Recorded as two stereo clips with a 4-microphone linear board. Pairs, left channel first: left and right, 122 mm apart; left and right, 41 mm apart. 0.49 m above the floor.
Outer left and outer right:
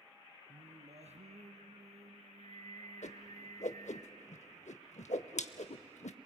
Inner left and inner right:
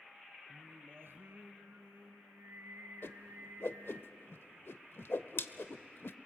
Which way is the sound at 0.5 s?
70° right (ahead or behind).